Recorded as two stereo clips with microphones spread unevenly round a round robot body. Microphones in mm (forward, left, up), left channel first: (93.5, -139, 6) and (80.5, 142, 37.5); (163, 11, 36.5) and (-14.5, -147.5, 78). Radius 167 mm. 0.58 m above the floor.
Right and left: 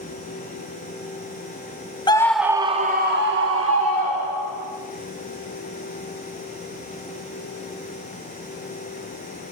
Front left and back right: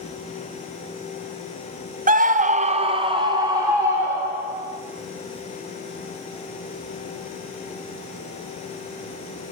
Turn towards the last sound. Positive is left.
turn(degrees=135)